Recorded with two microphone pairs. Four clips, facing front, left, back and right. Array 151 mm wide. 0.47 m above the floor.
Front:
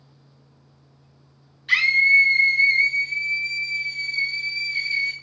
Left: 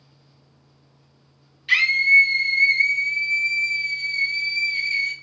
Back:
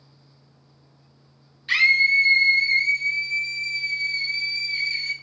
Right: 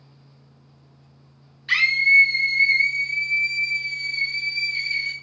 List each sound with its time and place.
1.7 s a scream: 100° right, 1.2 m